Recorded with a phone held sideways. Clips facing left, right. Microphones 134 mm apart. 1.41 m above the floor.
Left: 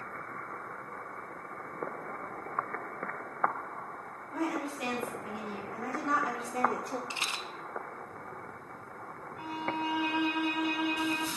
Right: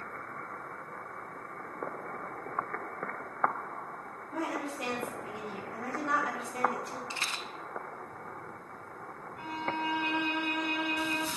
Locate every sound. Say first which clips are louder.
4.3 s a woman speaking: left 2 dB; 25° right (ahead or behind), 4 m; by 7.0 s 45° left (ahead or behind), 1.2 m
7.1 s a rattle: even; 20° left (ahead or behind), 0.6 m
9.4 s a violin: even; 5° left (ahead or behind), 1.7 m